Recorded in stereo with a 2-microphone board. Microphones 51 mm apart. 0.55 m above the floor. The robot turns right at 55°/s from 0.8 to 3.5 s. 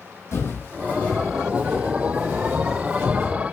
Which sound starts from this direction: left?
Footsteps, at 0.3 s.